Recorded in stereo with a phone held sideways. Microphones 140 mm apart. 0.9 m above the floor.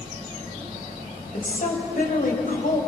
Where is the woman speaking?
80° left, 5 m.